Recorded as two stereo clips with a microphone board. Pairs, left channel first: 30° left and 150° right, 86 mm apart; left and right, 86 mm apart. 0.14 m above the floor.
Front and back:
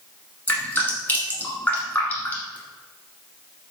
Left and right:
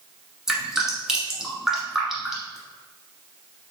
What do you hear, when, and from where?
0.5 s dripping: 10° right, 1.4 m